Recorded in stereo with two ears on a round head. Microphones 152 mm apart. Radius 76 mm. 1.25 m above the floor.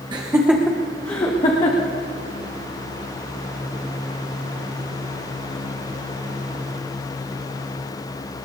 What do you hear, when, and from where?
0.1 s laughter: 25° right (ahead or behind), 1.0 m; by 1.9 s 40° left (ahead or behind), 1.9 m